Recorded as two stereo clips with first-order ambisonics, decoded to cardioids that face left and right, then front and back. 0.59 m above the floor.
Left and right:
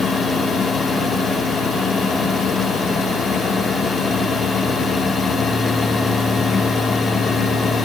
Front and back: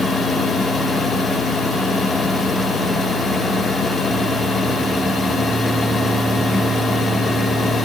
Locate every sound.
Only background noise.